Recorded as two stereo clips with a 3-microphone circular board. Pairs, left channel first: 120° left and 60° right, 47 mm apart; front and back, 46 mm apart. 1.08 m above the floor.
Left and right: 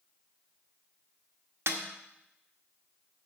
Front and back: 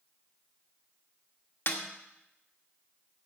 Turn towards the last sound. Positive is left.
turn(degrees=-35)